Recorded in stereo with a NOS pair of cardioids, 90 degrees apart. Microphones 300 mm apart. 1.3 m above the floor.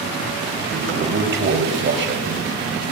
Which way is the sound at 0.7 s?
40° right.